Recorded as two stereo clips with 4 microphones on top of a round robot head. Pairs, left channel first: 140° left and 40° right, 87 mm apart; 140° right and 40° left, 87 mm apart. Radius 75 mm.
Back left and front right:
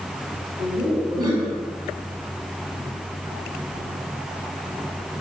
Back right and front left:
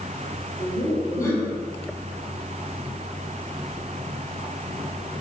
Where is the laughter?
85° right, 2.5 m.